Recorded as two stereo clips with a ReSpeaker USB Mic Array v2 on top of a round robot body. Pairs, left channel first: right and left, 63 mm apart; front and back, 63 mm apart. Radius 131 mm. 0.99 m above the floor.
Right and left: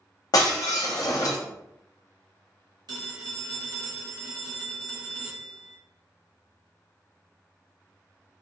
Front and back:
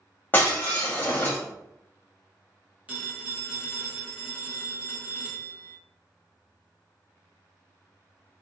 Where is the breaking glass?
60° right, 0.7 m.